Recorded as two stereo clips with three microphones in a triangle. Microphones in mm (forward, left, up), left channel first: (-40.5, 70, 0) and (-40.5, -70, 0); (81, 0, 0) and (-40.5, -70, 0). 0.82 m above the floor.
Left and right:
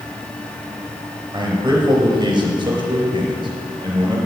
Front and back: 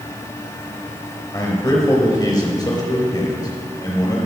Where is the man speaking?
35° right, 3.5 m.